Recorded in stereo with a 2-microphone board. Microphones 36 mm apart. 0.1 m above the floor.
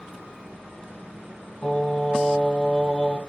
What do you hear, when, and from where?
1.6 s singing: 25° left (ahead or behind), 3 m